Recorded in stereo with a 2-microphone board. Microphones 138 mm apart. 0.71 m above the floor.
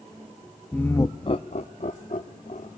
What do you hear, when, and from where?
0.7 s laughter: 5° left (ahead or behind), 0.5 m; by 2.7 s 60° left (ahead or behind), 1.3 m